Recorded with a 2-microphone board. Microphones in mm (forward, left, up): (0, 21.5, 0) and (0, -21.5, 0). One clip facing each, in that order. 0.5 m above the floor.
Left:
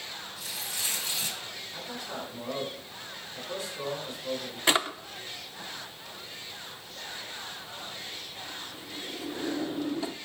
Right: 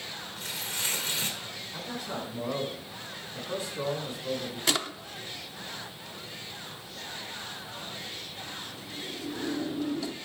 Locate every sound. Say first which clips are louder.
0.4 s tearing paper: right 3 dB; 45° right (ahead or behind), 1.9 m
1.7 s a man speaking: right 3 dB; 15° right (ahead or behind), 5.5 m
4.7 s a drawer: left 5 dB; 25° left (ahead or behind), 0.5 m